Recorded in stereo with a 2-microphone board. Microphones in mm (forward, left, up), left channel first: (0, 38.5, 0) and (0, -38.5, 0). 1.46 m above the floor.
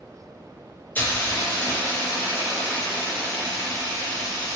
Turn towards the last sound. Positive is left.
turn(degrees=25)  # may be behind; listen again after turning